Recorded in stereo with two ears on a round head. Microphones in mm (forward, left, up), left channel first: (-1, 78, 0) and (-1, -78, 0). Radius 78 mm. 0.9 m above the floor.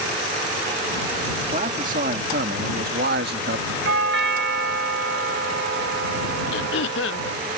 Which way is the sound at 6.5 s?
75° left (ahead or behind).